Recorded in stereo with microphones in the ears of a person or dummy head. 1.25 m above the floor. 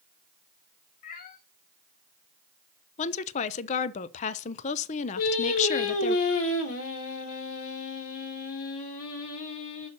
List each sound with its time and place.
1.0 s a cat meowing: 45° left (ahead or behind), 0.9 m
3.0 s a woman speaking: 35° left (ahead or behind), 0.6 m
5.2 s singing: 75° left (ahead or behind), 1.7 m